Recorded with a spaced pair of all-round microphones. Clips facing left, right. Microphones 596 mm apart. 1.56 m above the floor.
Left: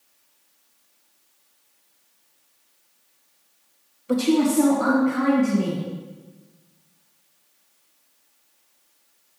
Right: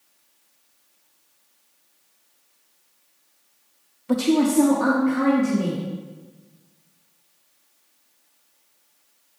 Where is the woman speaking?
25° right (ahead or behind), 0.7 m; by 5.8 s 25° left (ahead or behind), 3 m.